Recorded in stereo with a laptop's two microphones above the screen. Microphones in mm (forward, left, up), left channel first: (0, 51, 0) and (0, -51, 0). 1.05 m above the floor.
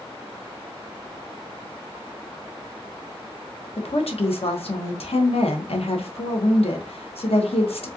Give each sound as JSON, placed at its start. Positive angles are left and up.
{"t": 3.8, "sound": "a woman speaking", "side_deg": 70, "distance_m": 0.8}